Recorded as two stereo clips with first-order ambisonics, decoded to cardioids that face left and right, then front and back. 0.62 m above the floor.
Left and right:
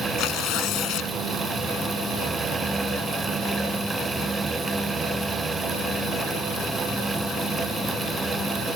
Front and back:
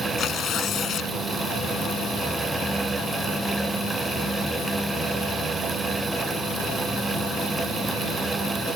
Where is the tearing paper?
55° left.